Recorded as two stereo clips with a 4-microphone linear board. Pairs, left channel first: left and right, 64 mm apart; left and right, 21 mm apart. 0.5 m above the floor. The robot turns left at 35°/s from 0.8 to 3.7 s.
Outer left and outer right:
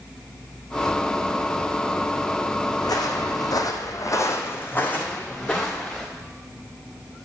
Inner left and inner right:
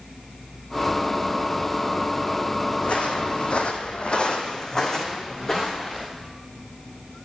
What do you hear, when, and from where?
2.8 s footsteps: 75° left (ahead or behind), 1.5 m; by 6.0 s 10° left (ahead or behind), 2.5 m